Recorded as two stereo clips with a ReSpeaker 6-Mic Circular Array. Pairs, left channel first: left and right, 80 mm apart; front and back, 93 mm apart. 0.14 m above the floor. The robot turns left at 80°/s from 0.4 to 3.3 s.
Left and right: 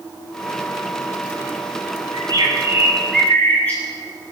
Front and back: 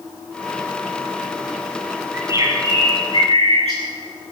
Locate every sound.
2.1 s a bird: 105° right, 8 m; by 3.8 s 160° left, 8 m